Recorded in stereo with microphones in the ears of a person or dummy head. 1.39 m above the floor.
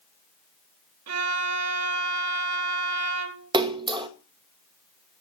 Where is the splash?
20° right (ahead or behind), 1.0 m.